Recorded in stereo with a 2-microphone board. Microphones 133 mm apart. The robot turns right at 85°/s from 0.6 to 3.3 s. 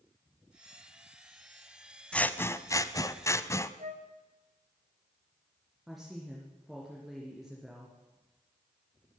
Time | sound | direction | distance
2.1 | scissors | 10° left (ahead or behind) | 0.5 m
3.8 | a flute | 70° right (ahead or behind) | 1.4 m
5.9 | a woman speaking | centre (ahead or behind) | 2.5 m